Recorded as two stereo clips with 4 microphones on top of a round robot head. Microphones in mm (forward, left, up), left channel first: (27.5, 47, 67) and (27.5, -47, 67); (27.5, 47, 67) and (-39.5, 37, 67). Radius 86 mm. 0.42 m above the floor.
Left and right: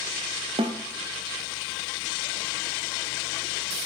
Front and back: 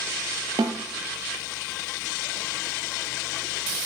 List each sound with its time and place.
0.6 s a snare drum: 130° right, 0.5 m